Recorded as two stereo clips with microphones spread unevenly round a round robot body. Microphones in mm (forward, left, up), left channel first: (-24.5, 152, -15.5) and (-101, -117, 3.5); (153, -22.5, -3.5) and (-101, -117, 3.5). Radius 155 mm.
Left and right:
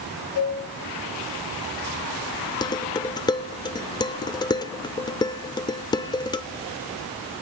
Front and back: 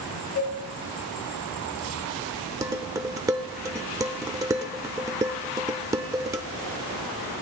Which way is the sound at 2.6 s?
130° left.